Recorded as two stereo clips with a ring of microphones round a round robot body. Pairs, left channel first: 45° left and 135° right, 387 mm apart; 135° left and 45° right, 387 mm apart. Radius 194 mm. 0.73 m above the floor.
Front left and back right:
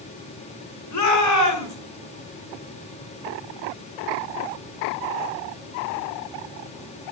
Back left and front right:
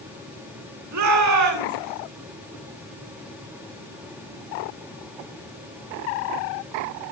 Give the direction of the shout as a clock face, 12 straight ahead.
12 o'clock.